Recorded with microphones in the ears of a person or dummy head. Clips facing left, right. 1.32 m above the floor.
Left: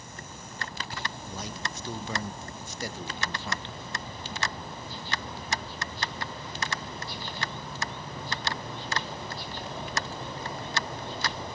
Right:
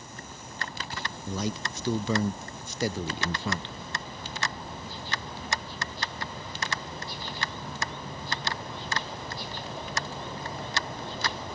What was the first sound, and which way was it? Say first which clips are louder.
A man speaking: right 6 dB; 55° right (ahead or behind).